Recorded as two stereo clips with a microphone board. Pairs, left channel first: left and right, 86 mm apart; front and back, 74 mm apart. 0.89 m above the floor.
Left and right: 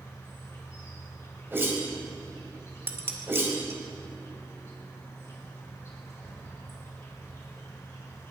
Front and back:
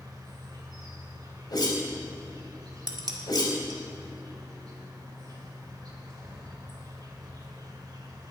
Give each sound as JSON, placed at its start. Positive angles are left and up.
{"t": 0.0, "sound": "an insect", "azimuth_deg": 145, "distance_m": 2.5}
{"t": 1.5, "sound": "a whoosh", "azimuth_deg": -25, "distance_m": 2.5}
{"t": 2.9, "sound": "dishes clattering", "azimuth_deg": -150, "distance_m": 1.4}